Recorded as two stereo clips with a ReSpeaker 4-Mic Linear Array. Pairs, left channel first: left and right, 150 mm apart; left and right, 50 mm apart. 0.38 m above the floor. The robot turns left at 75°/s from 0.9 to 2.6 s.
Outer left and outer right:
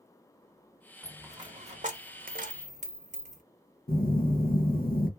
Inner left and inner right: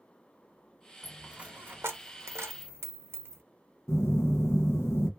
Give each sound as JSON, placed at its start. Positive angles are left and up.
{"t": 1.0, "sound": "a dropped coin", "side_deg": 0, "distance_m": 0.7}
{"t": 3.9, "sound": "a phone buzzing", "side_deg": 75, "distance_m": 0.8}